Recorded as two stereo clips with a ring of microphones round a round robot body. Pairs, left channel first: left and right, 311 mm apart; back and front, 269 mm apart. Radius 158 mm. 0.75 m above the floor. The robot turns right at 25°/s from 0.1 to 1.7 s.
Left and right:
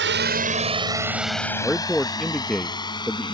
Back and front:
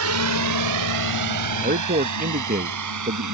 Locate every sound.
0.0 s a drone: 35° right; by 3.4 s 15° left
1.6 s a man speaking: straight ahead; by 3.4 s 5° left